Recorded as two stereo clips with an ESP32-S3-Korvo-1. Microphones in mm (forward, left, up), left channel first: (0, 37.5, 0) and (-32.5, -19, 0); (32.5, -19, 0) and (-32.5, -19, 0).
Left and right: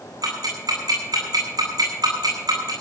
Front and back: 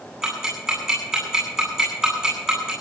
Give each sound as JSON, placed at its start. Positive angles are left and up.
{"t": 0.2, "sound": "ticking", "azimuth_deg": -100, "distance_m": 9.0}